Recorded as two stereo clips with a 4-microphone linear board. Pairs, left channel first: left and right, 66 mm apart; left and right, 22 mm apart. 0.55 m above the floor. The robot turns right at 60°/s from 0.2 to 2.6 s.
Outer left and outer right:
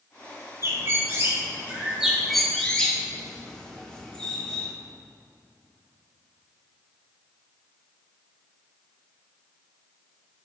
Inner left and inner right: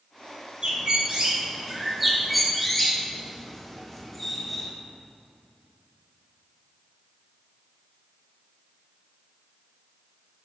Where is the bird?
45° right (ahead or behind), 1.4 m; by 4.7 s 10° left (ahead or behind), 1.4 m.